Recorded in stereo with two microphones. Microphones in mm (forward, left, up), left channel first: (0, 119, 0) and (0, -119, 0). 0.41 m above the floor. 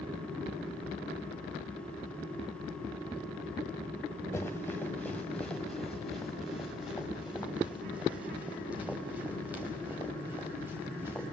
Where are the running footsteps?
10° left (ahead or behind), 2 m; by 11.3 s 10° right (ahead or behind), 6.5 m.